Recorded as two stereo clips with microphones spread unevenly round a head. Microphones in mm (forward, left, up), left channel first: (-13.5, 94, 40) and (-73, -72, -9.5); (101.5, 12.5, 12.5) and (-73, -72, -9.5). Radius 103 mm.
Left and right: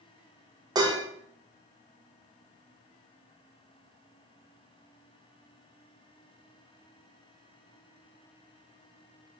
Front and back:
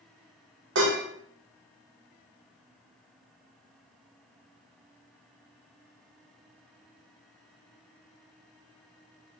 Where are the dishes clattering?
175° left, 0.9 m.